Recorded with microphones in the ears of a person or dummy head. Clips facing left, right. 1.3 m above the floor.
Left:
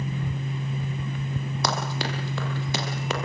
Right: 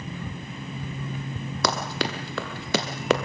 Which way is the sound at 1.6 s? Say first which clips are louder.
Right 3 dB; 60° right (ahead or behind).